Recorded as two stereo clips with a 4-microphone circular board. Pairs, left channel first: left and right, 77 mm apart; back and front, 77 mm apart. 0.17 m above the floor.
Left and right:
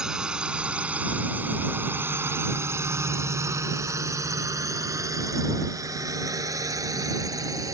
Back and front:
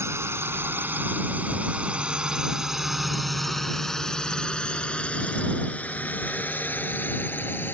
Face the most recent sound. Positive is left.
turn(degrees=-120)